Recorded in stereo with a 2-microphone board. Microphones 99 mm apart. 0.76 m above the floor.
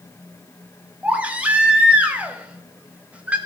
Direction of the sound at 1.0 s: 15° right (ahead or behind).